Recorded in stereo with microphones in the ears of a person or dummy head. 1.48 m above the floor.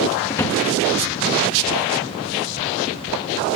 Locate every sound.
0.3 s a drawer: 15° left (ahead or behind), 1.6 m